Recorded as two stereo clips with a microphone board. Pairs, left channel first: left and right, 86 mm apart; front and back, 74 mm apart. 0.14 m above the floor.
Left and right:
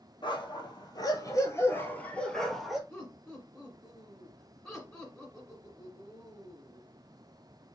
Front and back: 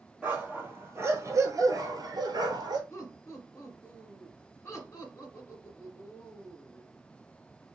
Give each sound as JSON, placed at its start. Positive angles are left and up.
{"t": 0.2, "sound": "a dog barking", "azimuth_deg": 110, "distance_m": 1.3}
{"t": 2.9, "sound": "laughter", "azimuth_deg": 20, "distance_m": 1.9}